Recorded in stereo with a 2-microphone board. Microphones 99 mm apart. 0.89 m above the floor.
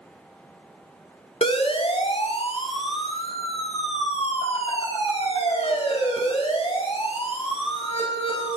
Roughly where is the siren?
Left.